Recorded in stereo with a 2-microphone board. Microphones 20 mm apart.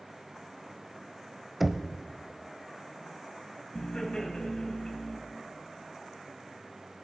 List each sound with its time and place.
1.6 s knocking: 5° right (ahead or behind), 0.7 m
3.8 s laughter: 40° left (ahead or behind), 2.0 m